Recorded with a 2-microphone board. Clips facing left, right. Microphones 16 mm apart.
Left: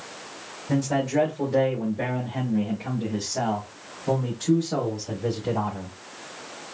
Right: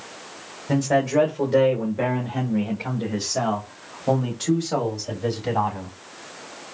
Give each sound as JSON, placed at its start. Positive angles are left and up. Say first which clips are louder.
{"t": 0.7, "sound": "a man speaking", "louder": "right 4 dB", "side_deg": -50, "distance_m": 1.6}